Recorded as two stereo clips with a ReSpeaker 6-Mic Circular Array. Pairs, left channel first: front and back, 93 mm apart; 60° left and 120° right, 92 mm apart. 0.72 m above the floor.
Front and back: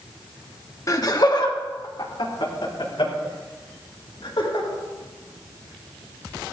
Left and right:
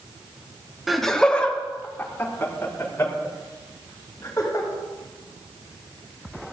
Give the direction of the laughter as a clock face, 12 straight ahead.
1 o'clock.